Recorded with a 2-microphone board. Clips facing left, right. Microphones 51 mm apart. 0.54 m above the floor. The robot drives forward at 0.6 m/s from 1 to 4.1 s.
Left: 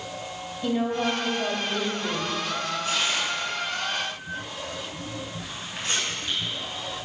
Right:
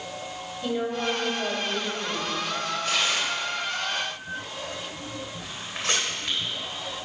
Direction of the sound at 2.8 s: 55° right (ahead or behind).